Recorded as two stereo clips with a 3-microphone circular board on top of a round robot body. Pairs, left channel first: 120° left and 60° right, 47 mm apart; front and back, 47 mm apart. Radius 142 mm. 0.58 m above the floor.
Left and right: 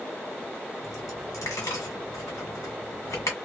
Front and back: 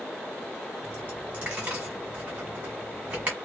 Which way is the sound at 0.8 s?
120° left.